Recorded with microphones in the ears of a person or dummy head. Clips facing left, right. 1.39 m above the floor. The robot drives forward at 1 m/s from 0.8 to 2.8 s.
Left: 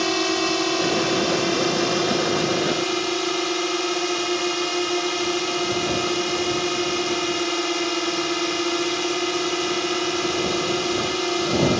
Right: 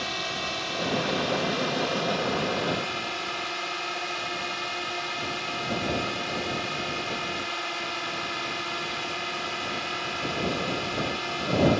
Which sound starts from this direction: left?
A drone, at 0.0 s.